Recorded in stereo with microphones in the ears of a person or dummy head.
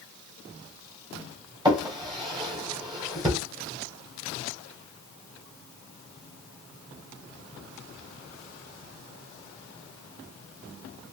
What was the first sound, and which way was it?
A drawer, 25° right (ahead or behind).